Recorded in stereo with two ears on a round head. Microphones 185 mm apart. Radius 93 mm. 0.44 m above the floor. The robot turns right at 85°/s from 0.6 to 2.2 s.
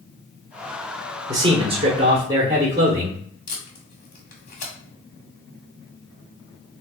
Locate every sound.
1.3 s a man speaking: 25° right (ahead or behind), 1.1 m; by 3.2 s 15° right (ahead or behind), 1.1 m
3.5 s tape being pulled: 40° left (ahead or behind), 1.7 m